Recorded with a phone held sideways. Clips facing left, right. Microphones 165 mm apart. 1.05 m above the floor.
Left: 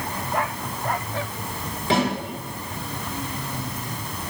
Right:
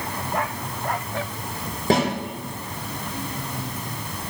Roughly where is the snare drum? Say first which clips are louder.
Right 2 dB; right.